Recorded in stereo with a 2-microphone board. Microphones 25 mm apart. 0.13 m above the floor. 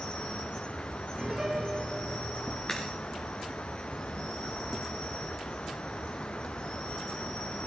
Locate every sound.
0.0 s an insect: 50° left (ahead or behind), 1.6 m
1.2 s a piano: 30° right (ahead or behind), 2.5 m
2.7 s a crack: 30° left (ahead or behind), 4 m